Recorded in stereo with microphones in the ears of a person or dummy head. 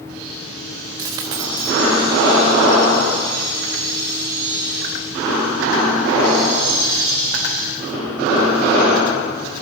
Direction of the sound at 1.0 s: 20° right (ahead or behind).